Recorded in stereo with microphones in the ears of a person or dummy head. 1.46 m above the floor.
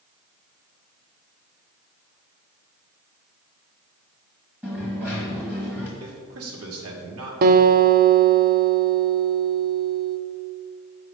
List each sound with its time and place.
4.6 s a dropped coin: 5° right (ahead or behind), 1.4 m
6.0 s a man speaking: 80° right, 1.6 m
7.4 s a guitar: 55° right (ahead or behind), 0.6 m